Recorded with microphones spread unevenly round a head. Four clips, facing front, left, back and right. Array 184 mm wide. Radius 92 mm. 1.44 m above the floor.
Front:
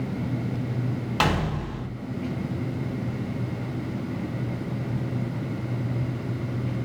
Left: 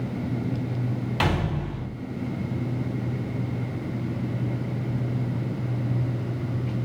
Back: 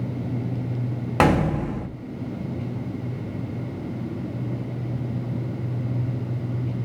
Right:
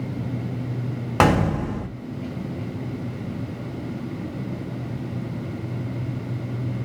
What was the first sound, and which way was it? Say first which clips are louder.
A gunshot: right 9 dB, back 7 dB; 125° right.